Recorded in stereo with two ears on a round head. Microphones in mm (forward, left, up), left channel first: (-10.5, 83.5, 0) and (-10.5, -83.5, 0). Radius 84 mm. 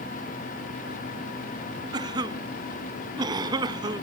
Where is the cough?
20° right (ahead or behind).